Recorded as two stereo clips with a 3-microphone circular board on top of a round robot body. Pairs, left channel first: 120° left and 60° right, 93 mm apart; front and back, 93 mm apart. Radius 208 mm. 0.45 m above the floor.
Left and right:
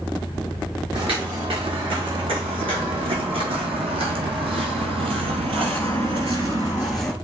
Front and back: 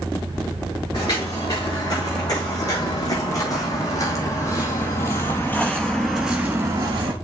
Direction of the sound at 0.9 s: 45° right.